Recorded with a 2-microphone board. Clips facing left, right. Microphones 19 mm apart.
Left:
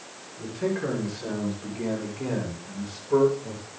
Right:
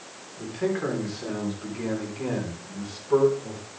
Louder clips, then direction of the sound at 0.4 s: Right 1 dB; 85° right.